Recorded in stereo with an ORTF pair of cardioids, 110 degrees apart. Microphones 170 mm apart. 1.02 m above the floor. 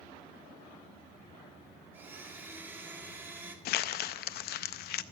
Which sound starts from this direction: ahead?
A blender, at 1.9 s.